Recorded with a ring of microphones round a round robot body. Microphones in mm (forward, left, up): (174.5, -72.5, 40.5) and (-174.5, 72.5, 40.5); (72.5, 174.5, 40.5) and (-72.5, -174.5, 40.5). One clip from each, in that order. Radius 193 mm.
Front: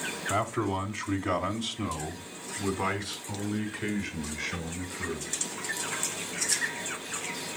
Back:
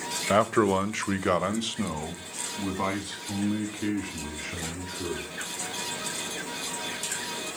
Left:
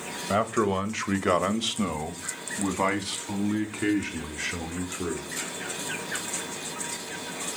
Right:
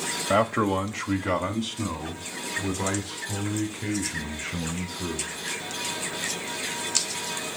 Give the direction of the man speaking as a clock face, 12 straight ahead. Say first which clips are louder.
Back 8 dB, right 2 dB; 6 o'clock.